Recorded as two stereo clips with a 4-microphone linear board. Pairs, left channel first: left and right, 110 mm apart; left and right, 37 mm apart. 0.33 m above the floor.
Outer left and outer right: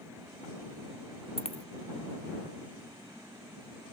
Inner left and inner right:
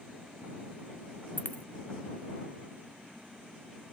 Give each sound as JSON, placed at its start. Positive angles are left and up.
{"t": 1.4, "sound": "a dropped coin", "side_deg": 65}